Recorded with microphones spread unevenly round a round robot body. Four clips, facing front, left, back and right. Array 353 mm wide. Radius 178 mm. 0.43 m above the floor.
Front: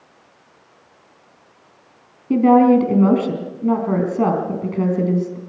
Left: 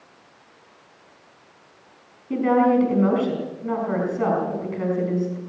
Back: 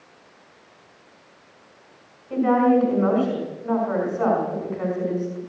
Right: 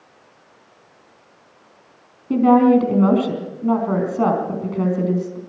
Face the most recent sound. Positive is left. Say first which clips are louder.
# right 5 dB, front 6 dB
turn(degrees=-25)